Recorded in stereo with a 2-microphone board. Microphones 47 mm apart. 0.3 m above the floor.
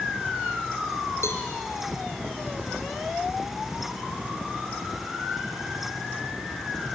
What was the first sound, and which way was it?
A cowbell, 80° left.